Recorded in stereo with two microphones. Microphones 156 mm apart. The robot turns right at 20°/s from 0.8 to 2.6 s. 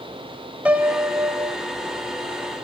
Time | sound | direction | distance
0.7 | a piano | 10° right (ahead or behind) | 1.3 m